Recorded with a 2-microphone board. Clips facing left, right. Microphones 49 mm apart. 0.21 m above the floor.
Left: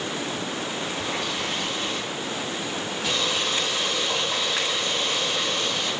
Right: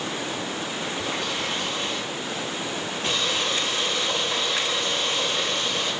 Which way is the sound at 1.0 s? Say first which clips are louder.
Right 1 dB; 50° right (ahead or behind).